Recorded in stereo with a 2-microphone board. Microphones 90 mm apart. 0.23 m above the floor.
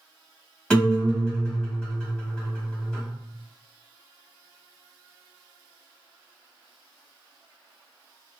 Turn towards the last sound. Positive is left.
turn(degrees=10)  # may be behind; listen again after turning